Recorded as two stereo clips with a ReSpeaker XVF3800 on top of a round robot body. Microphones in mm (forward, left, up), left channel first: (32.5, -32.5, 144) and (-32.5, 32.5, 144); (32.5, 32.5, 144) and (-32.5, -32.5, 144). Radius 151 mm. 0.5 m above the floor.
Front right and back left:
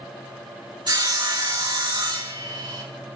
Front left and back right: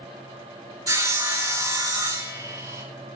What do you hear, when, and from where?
0.9 s sawing: 175° left, 3 m